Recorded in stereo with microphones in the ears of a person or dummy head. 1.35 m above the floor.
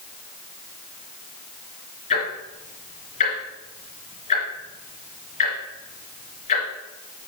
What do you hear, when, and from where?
2.1 s ticking: 40° left (ahead or behind), 3 m